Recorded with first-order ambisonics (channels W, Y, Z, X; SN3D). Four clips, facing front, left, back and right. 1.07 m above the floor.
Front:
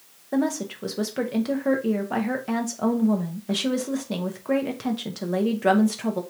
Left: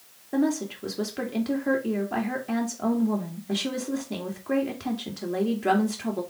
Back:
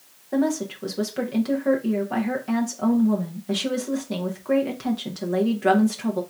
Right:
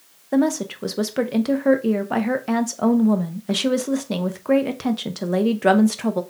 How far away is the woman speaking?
About 0.8 m.